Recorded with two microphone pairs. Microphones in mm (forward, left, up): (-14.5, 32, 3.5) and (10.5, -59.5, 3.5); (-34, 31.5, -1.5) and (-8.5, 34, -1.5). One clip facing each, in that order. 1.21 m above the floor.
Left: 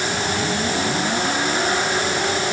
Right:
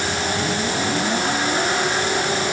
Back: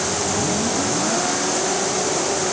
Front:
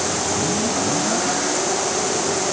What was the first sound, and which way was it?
Only background noise.